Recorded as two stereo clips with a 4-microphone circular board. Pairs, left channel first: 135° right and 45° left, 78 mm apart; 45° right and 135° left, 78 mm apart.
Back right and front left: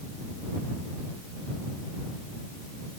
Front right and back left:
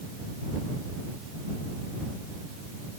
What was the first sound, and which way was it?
Only background noise.